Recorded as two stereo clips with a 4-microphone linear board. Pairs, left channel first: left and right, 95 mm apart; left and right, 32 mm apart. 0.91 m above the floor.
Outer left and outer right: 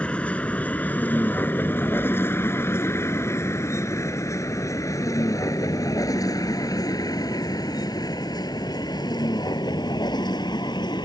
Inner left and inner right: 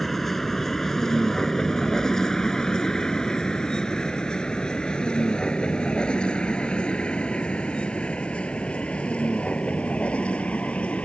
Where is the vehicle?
10° left (ahead or behind); by 11.1 s 50° left (ahead or behind).